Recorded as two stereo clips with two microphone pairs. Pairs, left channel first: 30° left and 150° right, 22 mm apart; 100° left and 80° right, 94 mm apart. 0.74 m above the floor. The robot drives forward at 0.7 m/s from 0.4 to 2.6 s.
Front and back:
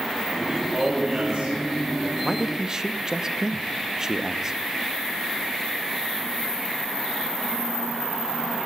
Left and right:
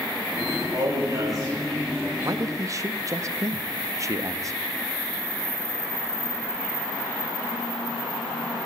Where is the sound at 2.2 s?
60° right, 0.5 m; by 4.6 s 105° right, 0.5 m.